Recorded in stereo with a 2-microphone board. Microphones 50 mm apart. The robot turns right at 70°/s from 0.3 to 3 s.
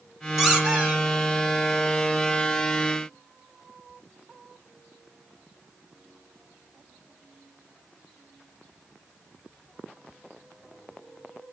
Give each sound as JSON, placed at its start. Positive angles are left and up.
{"t": 0.4, "sound": "a squeak", "azimuth_deg": -175, "distance_m": 4.0}